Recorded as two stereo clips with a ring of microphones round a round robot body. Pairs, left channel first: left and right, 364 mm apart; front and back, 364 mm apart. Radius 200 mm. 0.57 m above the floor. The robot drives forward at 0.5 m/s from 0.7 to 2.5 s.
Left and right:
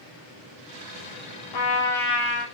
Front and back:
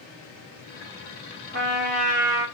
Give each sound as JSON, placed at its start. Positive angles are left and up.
{"t": 1.5, "sound": "a trumpet", "azimuth_deg": 120, "distance_m": 0.8}